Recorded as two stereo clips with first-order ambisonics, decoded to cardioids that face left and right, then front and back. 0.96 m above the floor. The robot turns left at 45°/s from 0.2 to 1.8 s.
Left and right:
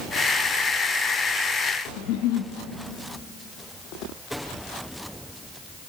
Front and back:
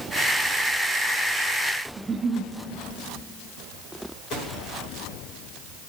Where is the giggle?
110° left, 0.6 m.